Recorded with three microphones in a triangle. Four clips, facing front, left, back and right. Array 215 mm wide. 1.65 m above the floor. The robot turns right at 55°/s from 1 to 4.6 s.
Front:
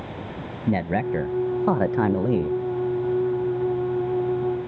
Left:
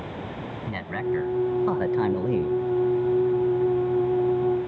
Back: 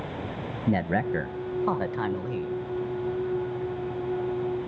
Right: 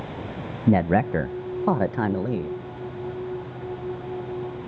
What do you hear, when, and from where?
0.7 s a man speaking: 80° right, 1.1 m; by 2.6 s 5° left, 1.1 m